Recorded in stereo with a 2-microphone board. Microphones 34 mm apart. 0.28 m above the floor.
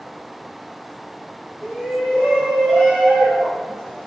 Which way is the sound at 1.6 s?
45° left (ahead or behind).